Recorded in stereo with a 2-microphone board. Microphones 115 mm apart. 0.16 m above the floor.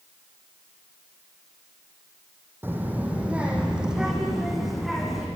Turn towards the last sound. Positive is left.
turn(degrees=0)  # may be behind; listen again after turning